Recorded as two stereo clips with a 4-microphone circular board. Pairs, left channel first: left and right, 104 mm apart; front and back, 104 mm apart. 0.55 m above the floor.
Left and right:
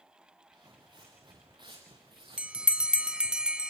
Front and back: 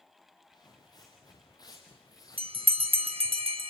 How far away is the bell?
About 0.9 m.